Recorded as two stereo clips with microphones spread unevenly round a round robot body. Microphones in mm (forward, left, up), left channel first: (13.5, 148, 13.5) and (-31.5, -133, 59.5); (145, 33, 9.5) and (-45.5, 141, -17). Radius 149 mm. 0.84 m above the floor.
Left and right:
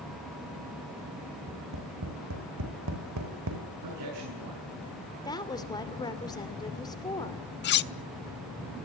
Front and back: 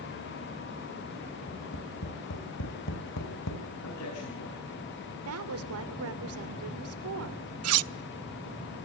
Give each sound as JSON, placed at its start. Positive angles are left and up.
{"t": 1.5, "sound": "tapping", "azimuth_deg": -65, "distance_m": 5.0}
{"t": 3.8, "sound": "a man speaking", "azimuth_deg": -75, "distance_m": 8.5}
{"t": 5.2, "sound": "a woman speaking", "azimuth_deg": 155, "distance_m": 2.5}
{"t": 7.6, "sound": "cutlery clinking", "azimuth_deg": 140, "distance_m": 0.6}